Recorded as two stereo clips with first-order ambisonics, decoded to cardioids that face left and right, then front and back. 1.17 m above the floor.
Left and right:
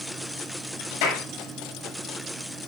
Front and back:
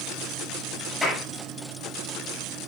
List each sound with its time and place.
1.0 s a clap: 85° left, 8 m